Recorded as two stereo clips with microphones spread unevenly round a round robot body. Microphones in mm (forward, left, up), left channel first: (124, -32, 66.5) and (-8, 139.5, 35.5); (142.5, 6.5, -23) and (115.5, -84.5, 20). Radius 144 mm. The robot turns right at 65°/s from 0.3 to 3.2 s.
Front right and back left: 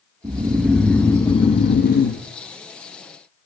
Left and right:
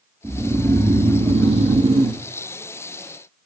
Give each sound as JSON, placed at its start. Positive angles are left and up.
{"t": 0.2, "sound": "snoring", "azimuth_deg": 175, "distance_m": 0.7}